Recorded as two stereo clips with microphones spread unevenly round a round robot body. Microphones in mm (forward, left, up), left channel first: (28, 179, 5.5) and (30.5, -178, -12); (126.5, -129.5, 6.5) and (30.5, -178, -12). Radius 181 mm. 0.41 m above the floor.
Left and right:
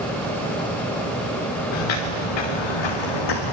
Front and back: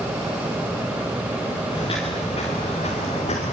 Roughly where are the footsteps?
Left.